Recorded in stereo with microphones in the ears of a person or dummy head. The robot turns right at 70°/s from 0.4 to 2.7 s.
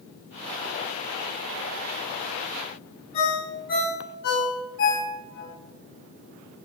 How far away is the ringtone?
About 1.4 m.